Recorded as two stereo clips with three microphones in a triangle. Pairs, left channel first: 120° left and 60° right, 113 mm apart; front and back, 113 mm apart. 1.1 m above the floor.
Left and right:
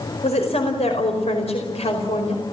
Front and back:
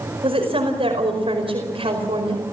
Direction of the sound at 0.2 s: 145° left.